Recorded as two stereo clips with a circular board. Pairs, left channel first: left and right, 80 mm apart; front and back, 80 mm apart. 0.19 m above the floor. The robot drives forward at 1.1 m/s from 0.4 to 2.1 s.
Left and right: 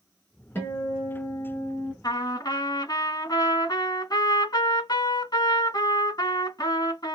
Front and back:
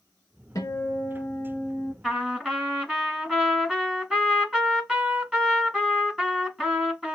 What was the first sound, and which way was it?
A guitar, 30° left.